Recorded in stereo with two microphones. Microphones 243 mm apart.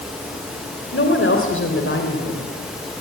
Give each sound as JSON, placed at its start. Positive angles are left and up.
{"t": 0.9, "sound": "a woman speaking", "side_deg": 55, "distance_m": 3.0}